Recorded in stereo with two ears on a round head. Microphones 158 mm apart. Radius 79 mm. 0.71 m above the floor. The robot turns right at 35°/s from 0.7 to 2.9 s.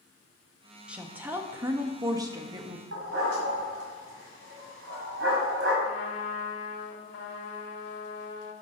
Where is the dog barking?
80° right, 1.8 m.